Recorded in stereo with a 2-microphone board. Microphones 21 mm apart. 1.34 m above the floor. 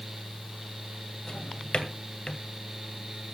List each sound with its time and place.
1.3 s a drawer: 60° left (ahead or behind), 2.0 m